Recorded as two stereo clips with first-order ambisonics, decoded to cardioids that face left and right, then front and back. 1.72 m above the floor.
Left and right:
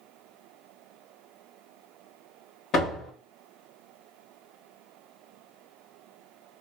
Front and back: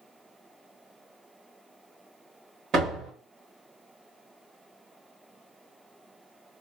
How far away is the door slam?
About 1.3 m.